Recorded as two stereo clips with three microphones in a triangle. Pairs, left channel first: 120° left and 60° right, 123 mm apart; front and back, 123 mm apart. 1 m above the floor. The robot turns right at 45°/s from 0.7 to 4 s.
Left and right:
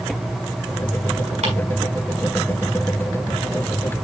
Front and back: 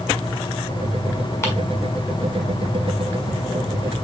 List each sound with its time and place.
1.4 s ticking: 65° right, 5.5 m; by 1.5 s 60° right, 5.5 m